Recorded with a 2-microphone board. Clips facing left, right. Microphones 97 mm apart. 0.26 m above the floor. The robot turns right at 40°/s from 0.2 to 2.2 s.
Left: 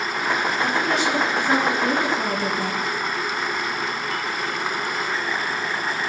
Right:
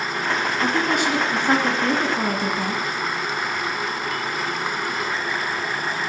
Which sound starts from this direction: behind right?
A woman speaking, at 0.6 s.